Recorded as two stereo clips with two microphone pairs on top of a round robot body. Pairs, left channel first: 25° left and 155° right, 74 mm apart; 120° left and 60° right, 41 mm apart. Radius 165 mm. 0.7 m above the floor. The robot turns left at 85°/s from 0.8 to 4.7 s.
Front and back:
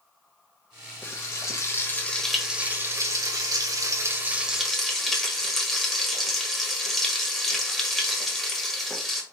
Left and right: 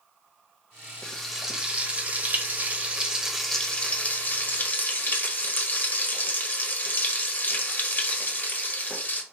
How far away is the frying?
About 1.3 m.